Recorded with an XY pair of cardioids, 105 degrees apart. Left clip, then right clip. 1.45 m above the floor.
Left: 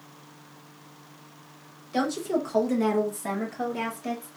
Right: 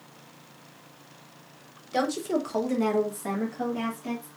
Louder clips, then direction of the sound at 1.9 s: Even; 25° right.